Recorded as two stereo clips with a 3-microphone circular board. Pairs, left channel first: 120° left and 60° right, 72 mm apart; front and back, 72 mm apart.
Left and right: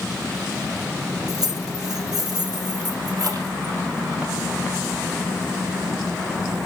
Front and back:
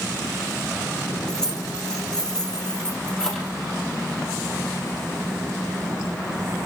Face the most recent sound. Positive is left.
turn(degrees=-80)